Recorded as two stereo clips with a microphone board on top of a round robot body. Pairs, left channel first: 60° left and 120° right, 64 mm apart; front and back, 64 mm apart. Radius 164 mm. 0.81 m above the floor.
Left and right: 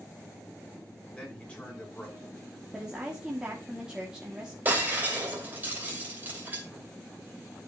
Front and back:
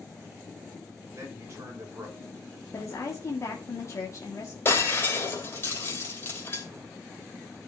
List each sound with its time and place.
1.1 s a man speaking: 130° left, 4 m; by 2.5 s 135° left, 3.5 m
2.7 s a woman speaking: 40° right, 1.7 m
4.7 s breaking glass: 55° right, 3 m